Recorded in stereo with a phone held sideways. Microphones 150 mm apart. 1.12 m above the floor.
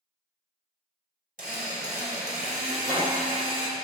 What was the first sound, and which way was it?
A drill, 70° right (ahead or behind).